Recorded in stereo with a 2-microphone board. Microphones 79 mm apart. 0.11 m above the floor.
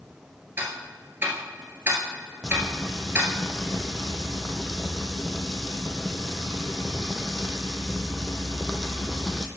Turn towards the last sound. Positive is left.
turn(degrees=0)  # may be behind; listen again after turning